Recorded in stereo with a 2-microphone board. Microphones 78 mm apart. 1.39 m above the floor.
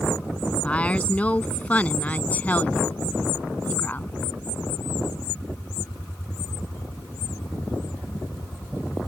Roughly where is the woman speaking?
Centre.